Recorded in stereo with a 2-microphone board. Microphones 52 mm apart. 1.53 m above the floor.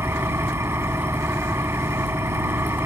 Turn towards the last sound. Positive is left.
turn(degrees=-60)  # may be behind; listen again after turning